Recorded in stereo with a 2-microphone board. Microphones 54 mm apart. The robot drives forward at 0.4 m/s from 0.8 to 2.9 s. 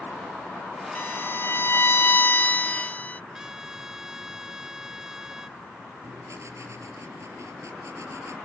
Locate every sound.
0.9 s a violin: 40° left (ahead or behind); by 3.2 s 30° left (ahead or behind)
3.3 s a trumpet: 10° right (ahead or behind)
6.0 s writing: 60° right (ahead or behind)